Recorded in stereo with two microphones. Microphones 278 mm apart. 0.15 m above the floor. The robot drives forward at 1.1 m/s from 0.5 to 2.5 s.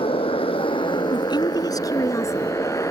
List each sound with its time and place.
0.0 s a motorcycle: 20° left (ahead or behind); by 2.9 s 10° left (ahead or behind)
1.1 s a woman speaking: 15° left (ahead or behind); by 2.6 s 10° left (ahead or behind)